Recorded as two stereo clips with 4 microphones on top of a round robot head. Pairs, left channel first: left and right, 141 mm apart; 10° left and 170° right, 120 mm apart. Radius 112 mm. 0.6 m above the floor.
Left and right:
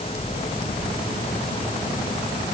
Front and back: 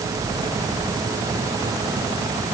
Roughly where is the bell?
I don't hear a bell.